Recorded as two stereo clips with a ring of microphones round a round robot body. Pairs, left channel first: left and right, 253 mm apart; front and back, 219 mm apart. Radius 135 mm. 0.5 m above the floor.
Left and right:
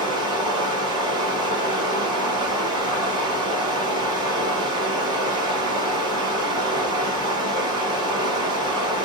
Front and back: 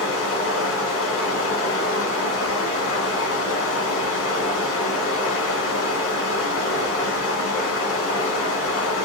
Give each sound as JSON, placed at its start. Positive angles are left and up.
{"t": 0.0, "sound": "running water", "azimuth_deg": -15, "distance_m": 2.0}